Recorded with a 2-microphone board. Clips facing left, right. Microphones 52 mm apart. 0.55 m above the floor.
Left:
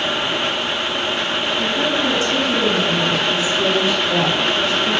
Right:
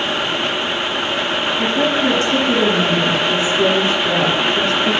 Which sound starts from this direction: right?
A woman speaking, at 1.6 s.